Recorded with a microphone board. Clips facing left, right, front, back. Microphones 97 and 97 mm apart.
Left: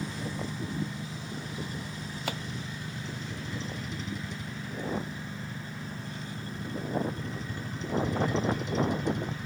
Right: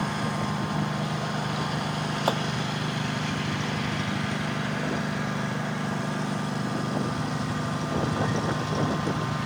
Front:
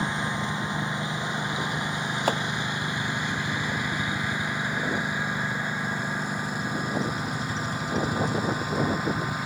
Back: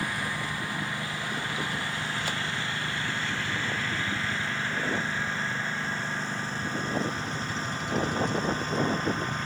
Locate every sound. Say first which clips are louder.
0.0 s a lawn mower: right 7 dB, front 3 dB; 70° right; by 9.5 s 80° right
2.3 s chopping: right 10 dB, front 8 dB; 45° right